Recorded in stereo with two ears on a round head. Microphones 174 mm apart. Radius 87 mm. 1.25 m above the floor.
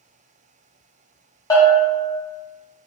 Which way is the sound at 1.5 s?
20° left (ahead or behind).